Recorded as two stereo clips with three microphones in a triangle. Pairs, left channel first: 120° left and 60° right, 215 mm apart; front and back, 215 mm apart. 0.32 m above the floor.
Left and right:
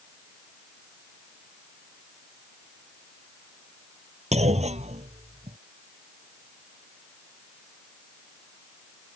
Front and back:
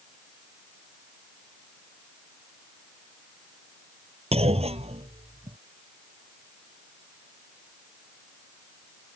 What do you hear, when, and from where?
4.3 s a clunk: 120° right